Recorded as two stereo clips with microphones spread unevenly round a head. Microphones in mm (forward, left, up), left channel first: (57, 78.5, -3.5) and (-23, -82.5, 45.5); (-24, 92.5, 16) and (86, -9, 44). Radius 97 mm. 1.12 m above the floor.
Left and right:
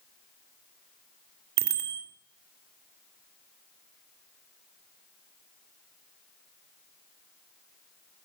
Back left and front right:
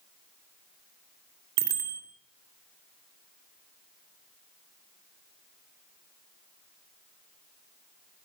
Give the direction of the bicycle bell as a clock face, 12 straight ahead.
3 o'clock.